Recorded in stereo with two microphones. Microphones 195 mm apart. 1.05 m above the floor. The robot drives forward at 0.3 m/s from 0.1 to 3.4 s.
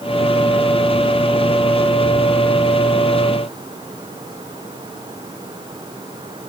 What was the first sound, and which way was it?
Only background noise.